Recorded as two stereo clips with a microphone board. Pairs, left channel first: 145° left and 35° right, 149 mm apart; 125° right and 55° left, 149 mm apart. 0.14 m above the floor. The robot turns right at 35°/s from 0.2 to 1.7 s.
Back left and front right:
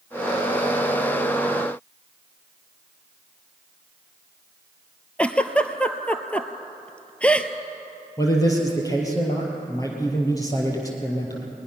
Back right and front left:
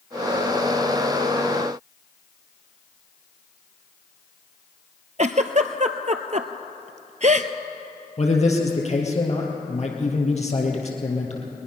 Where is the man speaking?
150° right, 3 m.